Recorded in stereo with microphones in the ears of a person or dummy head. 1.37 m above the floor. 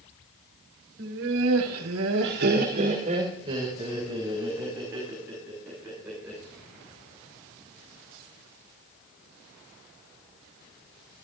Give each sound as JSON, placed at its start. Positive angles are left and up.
{"t": 1.0, "sound": "laughter", "side_deg": -60, "distance_m": 2.0}